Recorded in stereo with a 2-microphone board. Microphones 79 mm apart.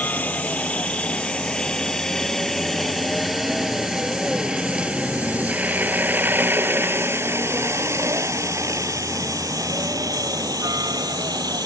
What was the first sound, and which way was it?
A helicopter, 20° left (ahead or behind).